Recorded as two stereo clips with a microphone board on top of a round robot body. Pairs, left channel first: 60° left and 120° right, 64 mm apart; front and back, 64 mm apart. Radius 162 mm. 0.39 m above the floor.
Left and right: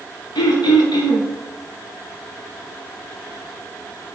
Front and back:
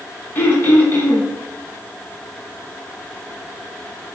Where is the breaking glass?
I don't hear breaking glass.